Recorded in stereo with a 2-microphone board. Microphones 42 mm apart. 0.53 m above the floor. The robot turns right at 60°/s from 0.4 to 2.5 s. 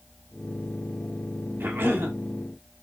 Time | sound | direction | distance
1.6 | a cough | 100° right | 2 m